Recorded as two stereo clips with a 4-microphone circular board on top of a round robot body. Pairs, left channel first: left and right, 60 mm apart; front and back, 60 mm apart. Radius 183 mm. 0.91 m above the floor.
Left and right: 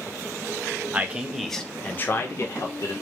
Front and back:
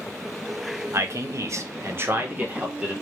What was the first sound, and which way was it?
A man speaking, 150° right.